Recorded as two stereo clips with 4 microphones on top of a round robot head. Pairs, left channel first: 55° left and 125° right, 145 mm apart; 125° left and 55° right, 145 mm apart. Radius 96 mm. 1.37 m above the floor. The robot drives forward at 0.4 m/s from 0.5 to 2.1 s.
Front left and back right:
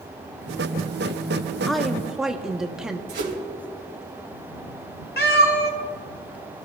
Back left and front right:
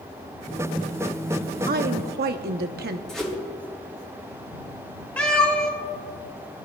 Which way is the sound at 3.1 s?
150° right.